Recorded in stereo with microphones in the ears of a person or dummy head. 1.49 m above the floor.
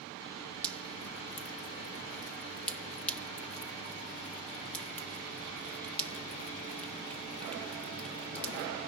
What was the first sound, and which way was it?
Dripping, 10° left (ahead or behind).